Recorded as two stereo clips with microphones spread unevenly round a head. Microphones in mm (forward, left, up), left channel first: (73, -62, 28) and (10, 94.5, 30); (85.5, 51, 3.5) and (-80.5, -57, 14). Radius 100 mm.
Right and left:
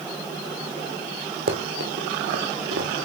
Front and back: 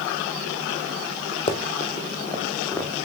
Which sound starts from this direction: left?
Running footsteps, at 1.5 s.